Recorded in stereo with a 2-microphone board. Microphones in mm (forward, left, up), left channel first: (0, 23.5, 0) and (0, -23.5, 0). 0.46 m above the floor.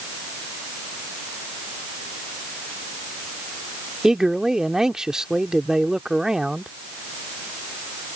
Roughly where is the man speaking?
Centre.